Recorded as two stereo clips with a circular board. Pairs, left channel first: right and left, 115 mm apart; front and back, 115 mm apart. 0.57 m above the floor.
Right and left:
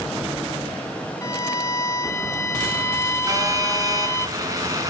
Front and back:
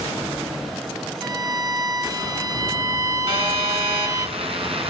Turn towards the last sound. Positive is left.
turn(degrees=145)